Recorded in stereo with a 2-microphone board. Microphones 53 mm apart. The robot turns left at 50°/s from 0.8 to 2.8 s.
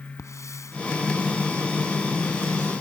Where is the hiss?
70° left (ahead or behind).